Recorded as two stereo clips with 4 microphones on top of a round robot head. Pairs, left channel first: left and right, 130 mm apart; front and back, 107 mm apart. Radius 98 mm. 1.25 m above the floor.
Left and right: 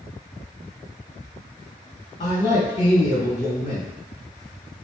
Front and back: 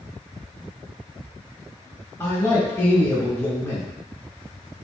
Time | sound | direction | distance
2.2 | a man speaking | 65° left | 1.9 m